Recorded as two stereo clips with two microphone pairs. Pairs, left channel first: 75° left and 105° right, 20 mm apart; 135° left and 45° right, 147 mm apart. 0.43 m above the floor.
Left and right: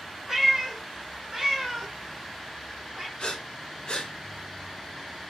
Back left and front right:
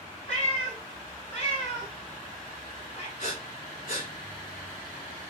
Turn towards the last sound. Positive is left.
turn(degrees=110)